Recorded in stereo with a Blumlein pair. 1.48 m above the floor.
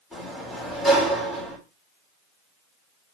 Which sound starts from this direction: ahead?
A sliding door, at 0.1 s.